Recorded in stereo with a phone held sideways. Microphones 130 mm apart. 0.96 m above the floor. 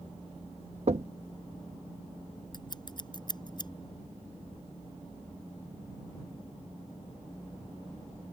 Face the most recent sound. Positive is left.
turn(degrees=35)  # may be behind; listen again after turning